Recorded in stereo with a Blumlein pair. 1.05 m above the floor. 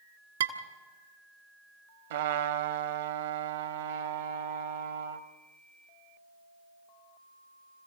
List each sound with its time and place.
0.4 s dishes clattering: 65° right, 1.8 m
2.1 s a trumpet: 60° right, 1.2 m